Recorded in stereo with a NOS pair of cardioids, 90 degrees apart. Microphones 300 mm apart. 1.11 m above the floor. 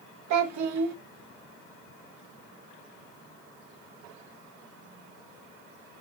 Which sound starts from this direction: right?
A child speaking, at 0.3 s.